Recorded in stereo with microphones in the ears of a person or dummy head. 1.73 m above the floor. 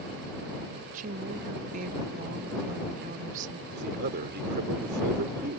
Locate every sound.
0.9 s a woman speaking: 40° right (ahead or behind)
3.7 s a man speaking: 55° right (ahead or behind)